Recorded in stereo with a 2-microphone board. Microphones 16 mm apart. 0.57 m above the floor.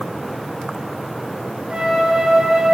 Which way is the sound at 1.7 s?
85° right.